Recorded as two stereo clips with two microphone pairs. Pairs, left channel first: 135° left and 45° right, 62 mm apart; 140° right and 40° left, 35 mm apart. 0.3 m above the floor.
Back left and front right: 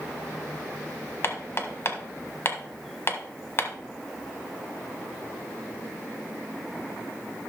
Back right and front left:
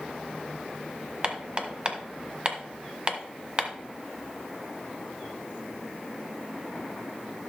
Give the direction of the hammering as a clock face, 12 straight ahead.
9 o'clock.